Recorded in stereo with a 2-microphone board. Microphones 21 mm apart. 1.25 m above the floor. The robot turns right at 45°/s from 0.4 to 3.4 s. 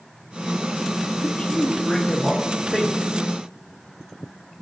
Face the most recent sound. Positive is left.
turn(degrees=-150)